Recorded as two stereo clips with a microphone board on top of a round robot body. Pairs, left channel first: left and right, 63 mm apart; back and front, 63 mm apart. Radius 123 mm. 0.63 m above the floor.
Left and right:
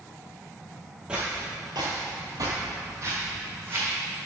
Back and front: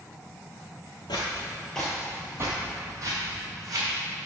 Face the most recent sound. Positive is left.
turn(degrees=-35)